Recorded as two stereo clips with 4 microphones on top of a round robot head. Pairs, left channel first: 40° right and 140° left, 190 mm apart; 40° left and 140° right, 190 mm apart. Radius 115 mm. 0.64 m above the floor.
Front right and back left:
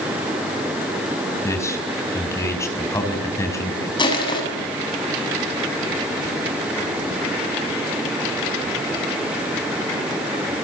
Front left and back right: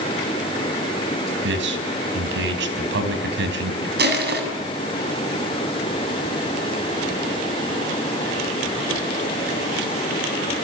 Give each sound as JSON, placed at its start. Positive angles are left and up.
{"t": 1.4, "sound": "a man speaking", "azimuth_deg": -115, "distance_m": 5.0}
{"t": 4.0, "sound": "crushing", "azimuth_deg": -105, "distance_m": 7.0}